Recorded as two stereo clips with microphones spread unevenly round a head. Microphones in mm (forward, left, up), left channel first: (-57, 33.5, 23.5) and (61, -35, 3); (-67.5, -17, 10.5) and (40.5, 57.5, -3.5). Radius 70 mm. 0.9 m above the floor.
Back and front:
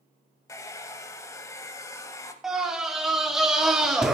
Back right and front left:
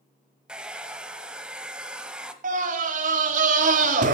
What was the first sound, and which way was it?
A hair dryer, 125° left.